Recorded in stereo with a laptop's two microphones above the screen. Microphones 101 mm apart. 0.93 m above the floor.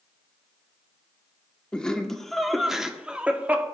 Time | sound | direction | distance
1.7 | laughter | 10° left (ahead or behind) | 2.5 m